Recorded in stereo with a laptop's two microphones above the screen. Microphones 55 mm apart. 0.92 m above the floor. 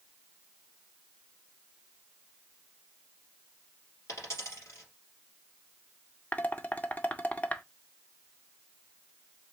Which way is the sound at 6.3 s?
30° left (ahead or behind).